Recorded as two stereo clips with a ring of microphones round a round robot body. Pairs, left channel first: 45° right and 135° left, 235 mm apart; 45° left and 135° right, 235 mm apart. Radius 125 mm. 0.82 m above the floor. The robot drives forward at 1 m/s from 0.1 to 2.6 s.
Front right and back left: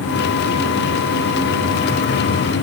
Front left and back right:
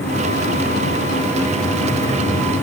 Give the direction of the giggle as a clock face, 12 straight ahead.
No giggle in this recording.